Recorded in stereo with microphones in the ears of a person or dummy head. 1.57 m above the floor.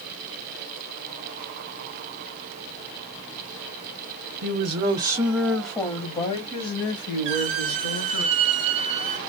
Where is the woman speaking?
50° right (ahead or behind), 0.7 m; by 8.2 s 70° left (ahead or behind), 1.6 m.